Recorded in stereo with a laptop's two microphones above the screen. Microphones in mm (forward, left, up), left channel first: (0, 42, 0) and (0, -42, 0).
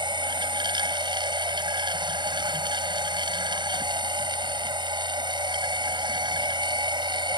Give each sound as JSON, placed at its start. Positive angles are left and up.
{"t": 0.0, "sound": "a machine running", "side_deg": -80}